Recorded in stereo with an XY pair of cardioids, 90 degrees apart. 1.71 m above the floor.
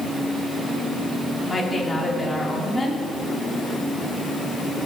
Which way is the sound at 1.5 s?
25° left.